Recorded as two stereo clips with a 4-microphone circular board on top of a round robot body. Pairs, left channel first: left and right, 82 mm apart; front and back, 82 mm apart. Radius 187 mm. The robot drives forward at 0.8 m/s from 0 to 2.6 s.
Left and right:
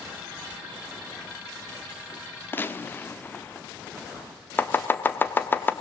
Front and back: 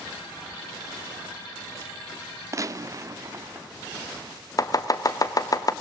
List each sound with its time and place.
2.5 s a gunshot: 145° left, 0.9 m; by 3.7 s 150° left, 0.9 m
4.6 s chopping: 30° left, 1.0 m